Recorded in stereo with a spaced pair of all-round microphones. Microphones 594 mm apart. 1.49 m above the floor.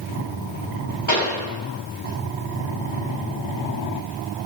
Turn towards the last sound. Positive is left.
turn(degrees=50)  # may be behind; listen again after turning